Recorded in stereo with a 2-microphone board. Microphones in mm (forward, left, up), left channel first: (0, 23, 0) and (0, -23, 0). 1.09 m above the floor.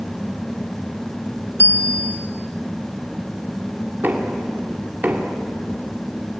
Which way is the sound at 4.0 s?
45° right (ahead or behind).